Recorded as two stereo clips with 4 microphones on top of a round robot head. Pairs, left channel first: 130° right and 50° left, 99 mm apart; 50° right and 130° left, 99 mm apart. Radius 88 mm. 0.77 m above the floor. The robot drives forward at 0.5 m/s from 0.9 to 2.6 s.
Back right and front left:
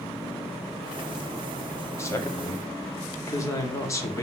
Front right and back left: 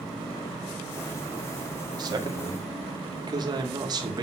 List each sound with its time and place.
2.0 s a man speaking: 170° left, 1.9 m; by 4.2 s 175° left, 2 m